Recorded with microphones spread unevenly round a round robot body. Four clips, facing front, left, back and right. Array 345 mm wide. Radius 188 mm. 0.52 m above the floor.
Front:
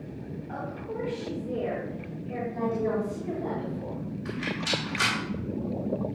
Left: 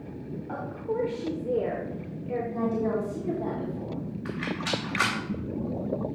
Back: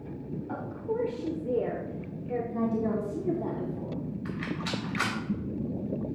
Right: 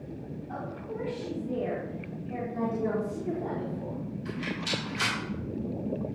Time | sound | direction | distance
0.5 | a woman speaking | 130° left | 1.6 m
2.5 | a woman speaking | 160° left | 3.5 m
4.2 | a rattle | 100° left | 3 m